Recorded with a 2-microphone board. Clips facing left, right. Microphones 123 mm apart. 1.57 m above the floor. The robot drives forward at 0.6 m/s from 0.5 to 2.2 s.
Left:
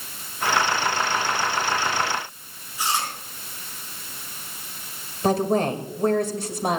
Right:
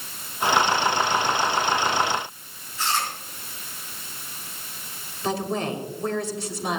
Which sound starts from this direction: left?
A woman speaking, at 5.2 s.